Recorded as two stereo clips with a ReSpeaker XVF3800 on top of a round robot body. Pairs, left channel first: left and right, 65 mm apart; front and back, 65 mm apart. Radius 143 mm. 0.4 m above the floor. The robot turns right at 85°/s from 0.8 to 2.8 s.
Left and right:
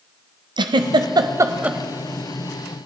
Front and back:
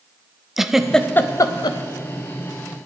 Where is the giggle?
95° right, 0.6 m; by 1.8 s 10° right, 0.6 m.